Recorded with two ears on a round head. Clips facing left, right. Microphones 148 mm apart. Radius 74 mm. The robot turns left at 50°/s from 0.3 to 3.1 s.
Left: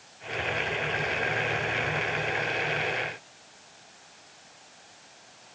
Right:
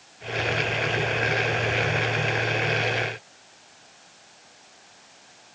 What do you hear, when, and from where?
Only background noise.